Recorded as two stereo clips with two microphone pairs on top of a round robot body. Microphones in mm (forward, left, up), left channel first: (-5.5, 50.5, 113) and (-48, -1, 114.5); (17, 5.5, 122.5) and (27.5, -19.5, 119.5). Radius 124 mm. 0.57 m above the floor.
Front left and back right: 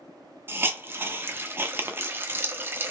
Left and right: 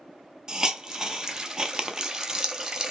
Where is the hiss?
100° right, 0.8 m.